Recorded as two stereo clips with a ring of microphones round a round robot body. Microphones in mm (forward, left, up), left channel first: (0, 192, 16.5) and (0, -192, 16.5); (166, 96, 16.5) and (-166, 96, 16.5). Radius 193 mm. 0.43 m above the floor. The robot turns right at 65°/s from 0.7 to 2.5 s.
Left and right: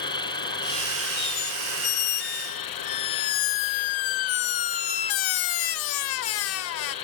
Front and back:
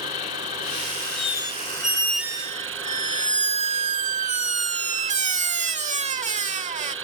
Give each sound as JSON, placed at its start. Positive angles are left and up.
{"t": 0.0, "sound": "an insect", "azimuth_deg": 10}
{"t": 1.2, "sound": "a squeak", "azimuth_deg": 25}